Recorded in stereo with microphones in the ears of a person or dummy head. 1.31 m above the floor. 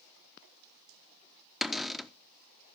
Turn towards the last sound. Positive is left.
turn(degrees=-5)  # may be behind; listen again after turning